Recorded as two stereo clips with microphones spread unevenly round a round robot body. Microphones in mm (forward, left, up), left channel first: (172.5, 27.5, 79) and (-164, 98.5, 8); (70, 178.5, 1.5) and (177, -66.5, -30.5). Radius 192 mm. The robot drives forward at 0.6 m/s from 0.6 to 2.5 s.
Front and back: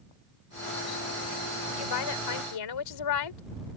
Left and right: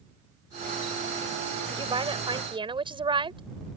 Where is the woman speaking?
5° left.